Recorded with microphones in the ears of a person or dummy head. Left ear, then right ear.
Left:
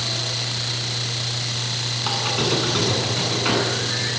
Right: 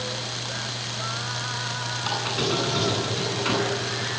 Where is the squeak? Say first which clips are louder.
Left 3 dB; 10° left (ahead or behind), 9.5 m.